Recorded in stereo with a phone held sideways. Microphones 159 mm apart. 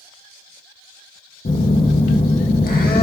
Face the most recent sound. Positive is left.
turn(degrees=70)  # may be behind; listen again after turning